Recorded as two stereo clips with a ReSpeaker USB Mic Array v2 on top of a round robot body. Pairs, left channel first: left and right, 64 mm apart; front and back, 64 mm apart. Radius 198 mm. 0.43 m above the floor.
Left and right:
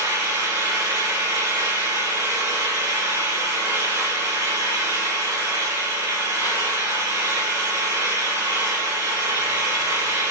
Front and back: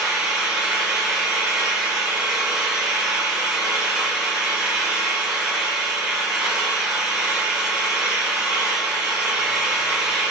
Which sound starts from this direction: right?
An engine running, at 0.0 s.